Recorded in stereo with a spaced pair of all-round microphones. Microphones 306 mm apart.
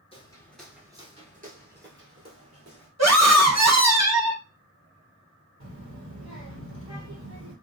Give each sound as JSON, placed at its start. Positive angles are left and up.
{"t": 0.1, "sound": "footsteps", "side_deg": 20, "distance_m": 1.1}
{"t": 3.0, "sound": "a scream", "side_deg": -60, "distance_m": 1.0}
{"t": 5.6, "sound": "a child speaking", "side_deg": -50, "distance_m": 1.0}